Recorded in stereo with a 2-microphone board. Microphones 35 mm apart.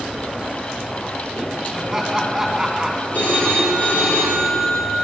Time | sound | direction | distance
1.7 | laughter | 5° right (ahead or behind) | 4 m
3.1 | a phone ringing | 50° left (ahead or behind) | 6 m